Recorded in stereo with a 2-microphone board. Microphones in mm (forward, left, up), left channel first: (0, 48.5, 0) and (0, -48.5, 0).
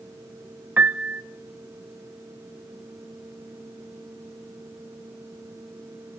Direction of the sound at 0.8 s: 15° right (ahead or behind).